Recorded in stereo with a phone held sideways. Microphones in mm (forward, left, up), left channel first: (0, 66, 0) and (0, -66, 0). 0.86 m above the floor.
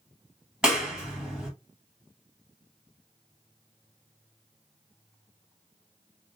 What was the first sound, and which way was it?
A clap, 5° right (ahead or behind).